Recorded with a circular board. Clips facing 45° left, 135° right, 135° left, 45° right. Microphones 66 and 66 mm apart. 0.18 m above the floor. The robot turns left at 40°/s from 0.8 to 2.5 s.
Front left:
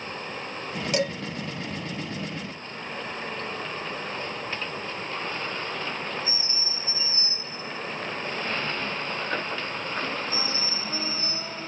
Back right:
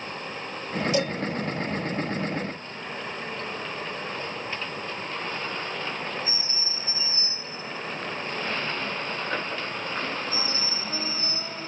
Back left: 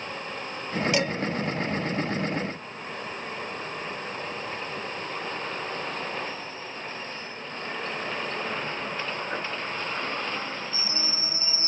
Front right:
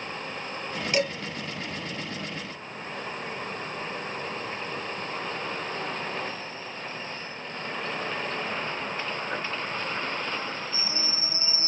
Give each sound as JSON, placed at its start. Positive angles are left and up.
{"t": 0.9, "sound": "dishes clattering", "azimuth_deg": 45, "distance_m": 1.8}